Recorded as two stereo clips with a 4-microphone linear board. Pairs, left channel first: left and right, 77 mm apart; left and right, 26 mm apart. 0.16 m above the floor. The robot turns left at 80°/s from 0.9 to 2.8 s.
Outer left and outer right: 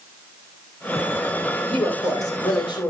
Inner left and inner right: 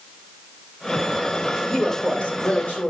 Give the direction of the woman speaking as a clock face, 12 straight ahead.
7 o'clock.